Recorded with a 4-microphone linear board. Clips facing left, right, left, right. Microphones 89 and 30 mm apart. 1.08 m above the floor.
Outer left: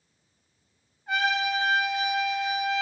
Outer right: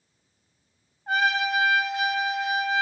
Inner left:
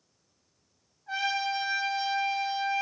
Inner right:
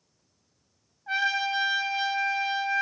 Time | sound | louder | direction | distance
1.1 | a trumpet | outer right 2 dB, inner right 3 dB | 40° right (ahead or behind) | 0.7 m